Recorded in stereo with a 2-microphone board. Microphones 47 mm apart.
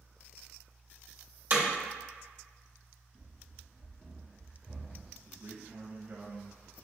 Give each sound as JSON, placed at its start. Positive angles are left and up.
{"t": 1.5, "sound": "hammering", "side_deg": -45, "distance_m": 1.1}
{"t": 3.1, "sound": "running footsteps", "side_deg": -20, "distance_m": 1.0}
{"t": 5.2, "sound": "a man speaking", "side_deg": -55, "distance_m": 1.3}